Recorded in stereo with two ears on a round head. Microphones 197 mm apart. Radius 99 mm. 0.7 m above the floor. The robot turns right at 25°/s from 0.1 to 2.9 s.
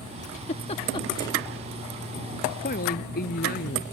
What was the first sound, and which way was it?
A giggle, 35° left (ahead or behind).